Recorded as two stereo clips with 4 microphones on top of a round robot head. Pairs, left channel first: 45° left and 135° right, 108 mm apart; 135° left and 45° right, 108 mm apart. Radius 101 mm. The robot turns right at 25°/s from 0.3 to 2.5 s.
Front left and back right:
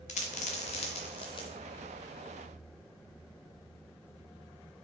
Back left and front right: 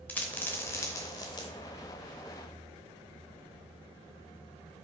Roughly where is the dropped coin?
Ahead left.